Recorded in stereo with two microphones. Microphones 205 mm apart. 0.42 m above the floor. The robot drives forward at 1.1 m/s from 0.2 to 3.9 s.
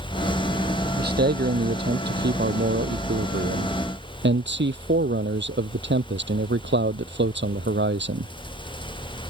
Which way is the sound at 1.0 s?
50° right (ahead or behind).